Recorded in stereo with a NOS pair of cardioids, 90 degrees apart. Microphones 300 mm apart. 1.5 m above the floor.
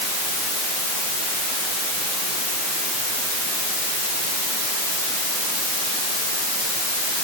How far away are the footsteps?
I don't hear footsteps.